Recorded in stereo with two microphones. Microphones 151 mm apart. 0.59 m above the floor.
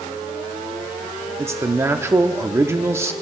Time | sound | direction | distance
1.4 | a man speaking | 20° right (ahead or behind) | 0.8 m